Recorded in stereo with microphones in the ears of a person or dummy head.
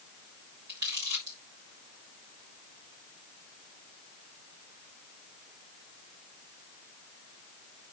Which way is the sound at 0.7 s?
55° right (ahead or behind).